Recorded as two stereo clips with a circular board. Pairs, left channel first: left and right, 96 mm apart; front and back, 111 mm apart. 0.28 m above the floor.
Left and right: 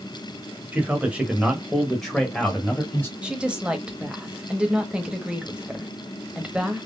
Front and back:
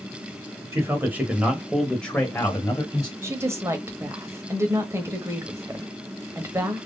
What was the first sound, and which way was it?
A man speaking, 140° right.